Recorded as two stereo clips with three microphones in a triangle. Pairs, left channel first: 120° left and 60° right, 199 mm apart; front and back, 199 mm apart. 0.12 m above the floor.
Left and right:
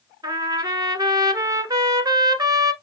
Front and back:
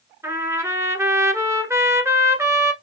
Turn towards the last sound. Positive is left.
turn(degrees=-115)